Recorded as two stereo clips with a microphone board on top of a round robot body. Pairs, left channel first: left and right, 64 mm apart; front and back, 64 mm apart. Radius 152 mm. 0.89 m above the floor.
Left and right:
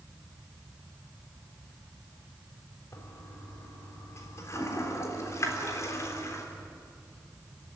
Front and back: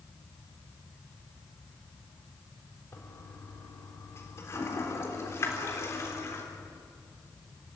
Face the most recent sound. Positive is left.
turn(degrees=45)